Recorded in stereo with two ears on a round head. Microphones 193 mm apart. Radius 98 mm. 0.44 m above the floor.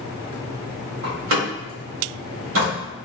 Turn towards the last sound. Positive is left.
turn(degrees=-65)  # may be behind; listen again after turning